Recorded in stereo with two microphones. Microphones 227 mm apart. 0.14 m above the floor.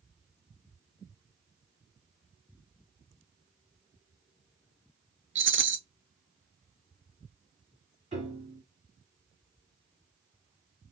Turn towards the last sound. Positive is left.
turn(degrees=-30)  # may be behind; listen again after turning